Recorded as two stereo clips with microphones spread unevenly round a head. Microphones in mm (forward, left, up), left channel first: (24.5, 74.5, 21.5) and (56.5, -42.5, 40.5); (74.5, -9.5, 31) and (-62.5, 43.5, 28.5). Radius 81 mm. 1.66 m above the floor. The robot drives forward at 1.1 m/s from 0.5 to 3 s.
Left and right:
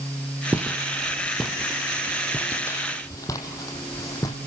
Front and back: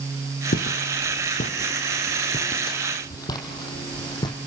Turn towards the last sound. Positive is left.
turn(degrees=40)